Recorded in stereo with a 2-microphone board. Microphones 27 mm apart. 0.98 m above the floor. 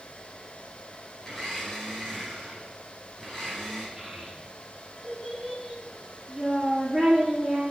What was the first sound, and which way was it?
A blender, 20° left (ahead or behind).